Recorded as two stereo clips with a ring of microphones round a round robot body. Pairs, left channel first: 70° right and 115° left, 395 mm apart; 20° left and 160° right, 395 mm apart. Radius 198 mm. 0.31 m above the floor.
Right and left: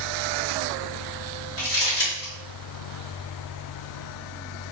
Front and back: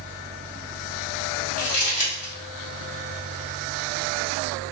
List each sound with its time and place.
1.6 s crumpling: 5° right, 1.5 m